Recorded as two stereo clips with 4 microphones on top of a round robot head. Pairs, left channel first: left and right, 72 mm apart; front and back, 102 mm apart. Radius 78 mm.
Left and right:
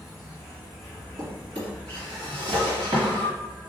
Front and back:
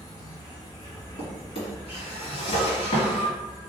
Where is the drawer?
50° right, 1.4 m.